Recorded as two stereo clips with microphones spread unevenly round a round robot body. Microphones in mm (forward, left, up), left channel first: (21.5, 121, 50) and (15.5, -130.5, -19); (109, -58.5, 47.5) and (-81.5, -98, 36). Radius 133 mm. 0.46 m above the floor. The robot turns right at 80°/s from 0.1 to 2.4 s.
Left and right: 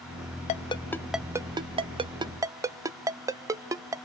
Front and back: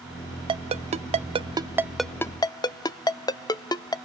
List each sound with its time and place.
0.5 s a ringtone: 155° left, 0.6 m; by 4.0 s 50° right, 0.6 m